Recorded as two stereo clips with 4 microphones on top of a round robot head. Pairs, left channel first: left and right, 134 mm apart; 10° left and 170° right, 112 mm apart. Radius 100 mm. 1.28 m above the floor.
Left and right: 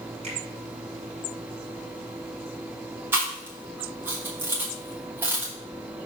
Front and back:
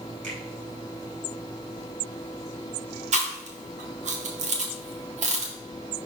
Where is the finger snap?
145° right, 2.5 m.